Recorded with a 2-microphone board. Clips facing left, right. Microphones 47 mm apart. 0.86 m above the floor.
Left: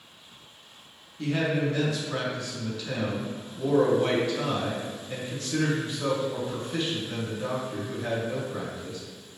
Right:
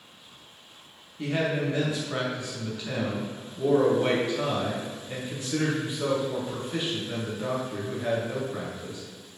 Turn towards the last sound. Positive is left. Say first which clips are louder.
# left 1 dB
turn(degrees=-15)  # may be behind; listen again after turning